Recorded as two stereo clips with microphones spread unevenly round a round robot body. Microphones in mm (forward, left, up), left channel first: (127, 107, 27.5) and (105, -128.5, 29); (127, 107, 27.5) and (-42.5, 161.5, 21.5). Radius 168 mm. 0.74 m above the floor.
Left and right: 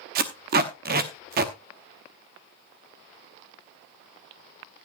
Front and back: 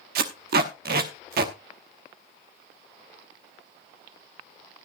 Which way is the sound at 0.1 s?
155° right.